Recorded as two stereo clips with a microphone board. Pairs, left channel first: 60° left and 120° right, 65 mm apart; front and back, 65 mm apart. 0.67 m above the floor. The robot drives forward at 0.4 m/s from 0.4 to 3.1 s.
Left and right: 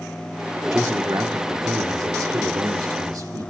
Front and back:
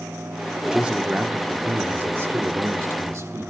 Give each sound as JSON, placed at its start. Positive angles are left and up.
{"t": 0.7, "sound": "a man speaking", "azimuth_deg": -105, "distance_m": 1.3}